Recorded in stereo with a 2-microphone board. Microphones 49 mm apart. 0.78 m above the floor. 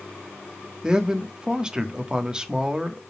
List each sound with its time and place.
0.8 s a man speaking: 15° right (ahead or behind), 1.4 m